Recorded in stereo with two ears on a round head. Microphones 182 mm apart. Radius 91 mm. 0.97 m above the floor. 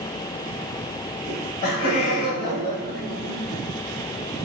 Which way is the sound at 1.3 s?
40° left (ahead or behind).